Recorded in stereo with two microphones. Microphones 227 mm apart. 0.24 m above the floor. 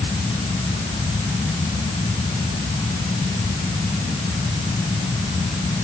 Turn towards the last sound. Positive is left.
No sound to turn to.